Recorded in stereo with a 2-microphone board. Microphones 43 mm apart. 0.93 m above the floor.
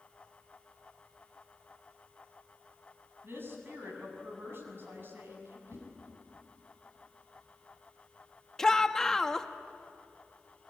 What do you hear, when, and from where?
3.2 s a woman speaking: 60° right (ahead or behind), 6.5 m
5.7 s a whoosh: 75° right (ahead or behind), 6 m
8.6 s a shout: 15° left (ahead or behind), 1.2 m